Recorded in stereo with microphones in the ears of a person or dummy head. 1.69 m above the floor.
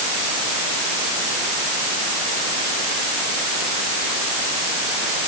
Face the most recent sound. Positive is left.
No sound to turn to.